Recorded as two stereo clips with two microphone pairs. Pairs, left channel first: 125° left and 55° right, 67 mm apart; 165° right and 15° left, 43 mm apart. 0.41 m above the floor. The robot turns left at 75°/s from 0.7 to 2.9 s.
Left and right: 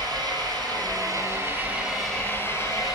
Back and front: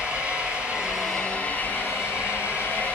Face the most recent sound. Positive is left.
turn(degrees=145)